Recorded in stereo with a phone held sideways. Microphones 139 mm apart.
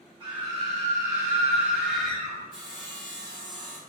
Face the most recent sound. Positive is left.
turn(degrees=5)  # may be behind; listen again after turning